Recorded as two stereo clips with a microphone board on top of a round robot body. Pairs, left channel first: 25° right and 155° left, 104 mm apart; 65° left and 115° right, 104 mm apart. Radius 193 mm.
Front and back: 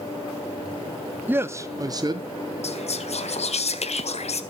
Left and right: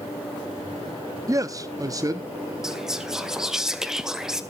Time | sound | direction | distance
1.3 | a man speaking | 145° right | 0.8 m
2.6 | whispering | 25° right | 1.9 m